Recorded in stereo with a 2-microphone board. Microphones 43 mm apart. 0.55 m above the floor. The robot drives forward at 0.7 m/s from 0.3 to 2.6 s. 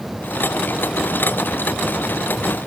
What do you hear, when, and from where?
Only background noise.